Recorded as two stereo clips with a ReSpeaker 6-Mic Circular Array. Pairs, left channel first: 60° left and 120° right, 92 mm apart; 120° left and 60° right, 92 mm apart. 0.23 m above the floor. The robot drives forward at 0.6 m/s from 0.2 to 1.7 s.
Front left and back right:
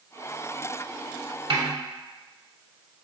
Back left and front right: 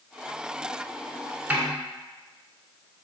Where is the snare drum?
135° right, 0.9 m; by 1.7 s 140° right, 1.0 m.